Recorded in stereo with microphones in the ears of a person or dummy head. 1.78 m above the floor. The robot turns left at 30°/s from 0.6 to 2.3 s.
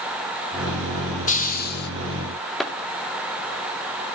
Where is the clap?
5° right (ahead or behind), 2 m.